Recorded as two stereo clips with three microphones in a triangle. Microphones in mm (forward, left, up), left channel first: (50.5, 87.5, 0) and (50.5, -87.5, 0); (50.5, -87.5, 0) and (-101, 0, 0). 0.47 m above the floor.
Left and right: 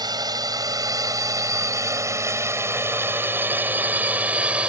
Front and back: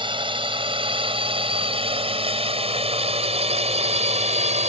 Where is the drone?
155° right; by 4.7 s 170° right.